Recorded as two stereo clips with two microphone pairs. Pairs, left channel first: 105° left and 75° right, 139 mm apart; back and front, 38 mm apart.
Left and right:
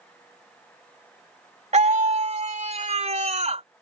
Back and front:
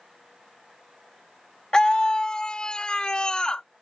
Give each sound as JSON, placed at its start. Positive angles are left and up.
{"t": 1.7, "sound": "a scream", "azimuth_deg": -110}